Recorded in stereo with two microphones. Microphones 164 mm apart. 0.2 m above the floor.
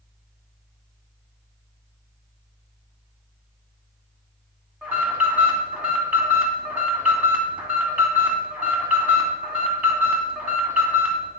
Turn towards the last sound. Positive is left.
turn(degrees=-10)  # may be behind; listen again after turning